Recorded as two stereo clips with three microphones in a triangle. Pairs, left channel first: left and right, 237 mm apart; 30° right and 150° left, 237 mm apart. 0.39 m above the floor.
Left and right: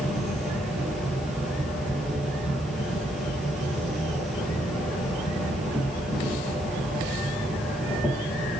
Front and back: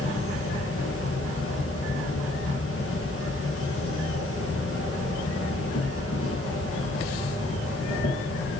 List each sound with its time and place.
0.0 s an insect: straight ahead, 5.5 m